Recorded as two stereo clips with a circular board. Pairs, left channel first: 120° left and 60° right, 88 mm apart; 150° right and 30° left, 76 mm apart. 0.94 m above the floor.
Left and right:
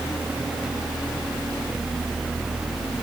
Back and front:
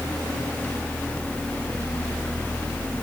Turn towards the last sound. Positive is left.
No sound to turn to.